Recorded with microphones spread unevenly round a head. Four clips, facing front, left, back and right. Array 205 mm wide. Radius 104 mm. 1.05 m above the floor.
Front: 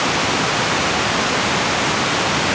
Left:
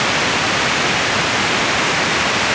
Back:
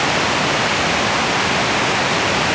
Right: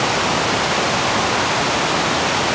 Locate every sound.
Only background noise.